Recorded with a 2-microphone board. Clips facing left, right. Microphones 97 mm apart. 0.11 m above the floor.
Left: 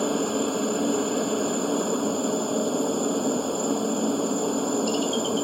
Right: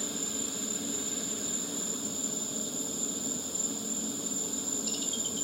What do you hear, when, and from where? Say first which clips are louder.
0.0 s a helicopter: left 15 dB; 60° left (ahead or behind)